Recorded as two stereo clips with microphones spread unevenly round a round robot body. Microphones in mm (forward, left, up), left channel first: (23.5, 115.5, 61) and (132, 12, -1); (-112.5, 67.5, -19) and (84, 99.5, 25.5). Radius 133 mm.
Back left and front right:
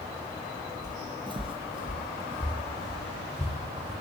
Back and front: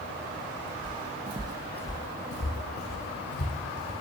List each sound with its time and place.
0.8 s footsteps: 30° left, 1.3 m; by 3.9 s 145° right, 2.5 m